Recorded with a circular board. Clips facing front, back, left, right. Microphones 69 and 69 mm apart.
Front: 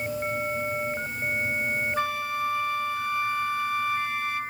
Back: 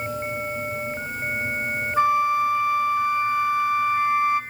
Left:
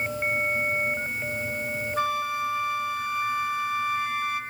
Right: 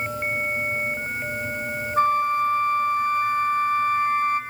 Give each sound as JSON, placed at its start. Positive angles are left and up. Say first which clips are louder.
{"t": 2.0, "sound": "a flute", "louder": "back 9 dB, right 8 dB", "azimuth_deg": -120, "distance_m": 0.8}